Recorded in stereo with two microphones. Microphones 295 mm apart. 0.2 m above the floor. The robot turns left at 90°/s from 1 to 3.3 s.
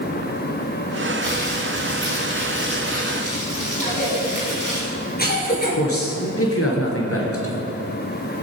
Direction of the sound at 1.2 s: 95° left.